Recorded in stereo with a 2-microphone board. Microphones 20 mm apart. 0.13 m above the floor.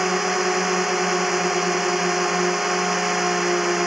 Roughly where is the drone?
Centre.